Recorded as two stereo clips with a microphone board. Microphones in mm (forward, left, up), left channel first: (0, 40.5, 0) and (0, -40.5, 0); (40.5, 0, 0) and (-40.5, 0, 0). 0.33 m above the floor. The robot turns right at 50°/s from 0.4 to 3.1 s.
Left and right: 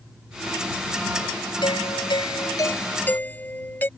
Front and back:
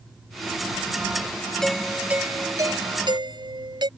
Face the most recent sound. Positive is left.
turn(degrees=155)